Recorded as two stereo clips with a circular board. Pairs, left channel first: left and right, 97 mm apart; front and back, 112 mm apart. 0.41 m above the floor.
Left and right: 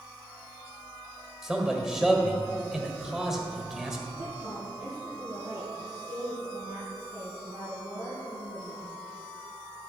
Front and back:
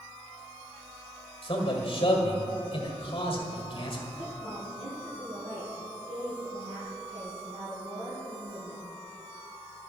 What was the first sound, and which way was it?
A man speaking, 5° right.